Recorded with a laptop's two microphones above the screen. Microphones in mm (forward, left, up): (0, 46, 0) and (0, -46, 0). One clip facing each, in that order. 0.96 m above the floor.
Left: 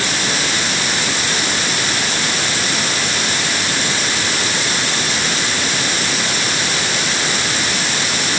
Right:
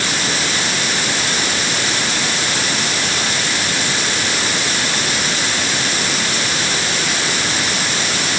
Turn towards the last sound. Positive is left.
No sound to turn to.